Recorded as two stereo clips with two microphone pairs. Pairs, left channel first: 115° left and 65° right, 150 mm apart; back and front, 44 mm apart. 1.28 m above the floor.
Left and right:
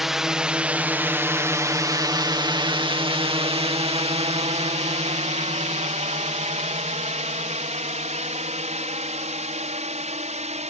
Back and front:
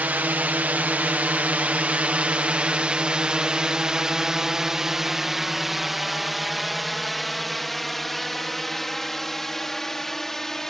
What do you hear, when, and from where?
0.0 s a drone: 25° left; by 10.7 s 100° right